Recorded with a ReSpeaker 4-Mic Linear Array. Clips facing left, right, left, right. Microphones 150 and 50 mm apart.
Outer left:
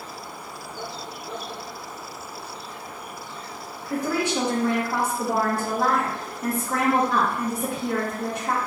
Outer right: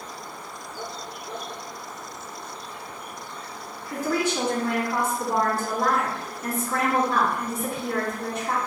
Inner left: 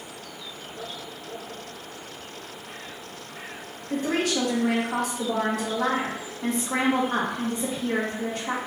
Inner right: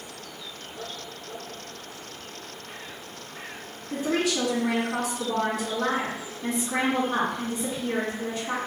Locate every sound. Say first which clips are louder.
3.9 s a woman speaking: outer left 1 dB, inner left 1 dB; 65° left (ahead or behind), 2 m